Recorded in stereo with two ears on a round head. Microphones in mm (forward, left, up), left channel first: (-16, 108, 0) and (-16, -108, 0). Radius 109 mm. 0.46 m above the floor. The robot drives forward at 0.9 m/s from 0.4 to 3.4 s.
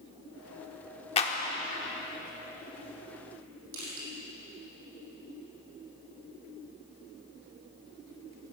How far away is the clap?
About 1.1 m.